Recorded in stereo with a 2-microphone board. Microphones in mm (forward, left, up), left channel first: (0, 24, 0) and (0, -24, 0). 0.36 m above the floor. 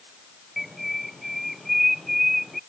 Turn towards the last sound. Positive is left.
turn(degrees=0)  # may be behind; listen again after turning